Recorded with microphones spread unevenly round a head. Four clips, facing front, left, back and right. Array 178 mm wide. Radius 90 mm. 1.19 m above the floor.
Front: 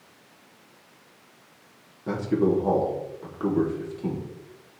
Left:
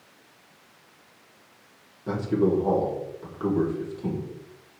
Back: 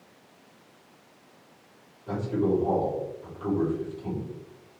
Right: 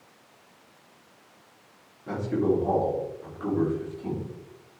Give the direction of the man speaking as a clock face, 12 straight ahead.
11 o'clock.